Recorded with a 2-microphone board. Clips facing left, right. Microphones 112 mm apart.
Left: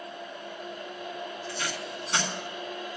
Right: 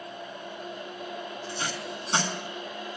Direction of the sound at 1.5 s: 30° right (ahead or behind).